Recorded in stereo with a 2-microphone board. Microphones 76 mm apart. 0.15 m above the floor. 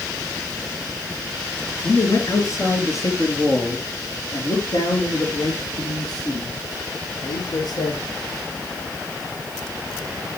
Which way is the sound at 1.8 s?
40° left (ahead or behind).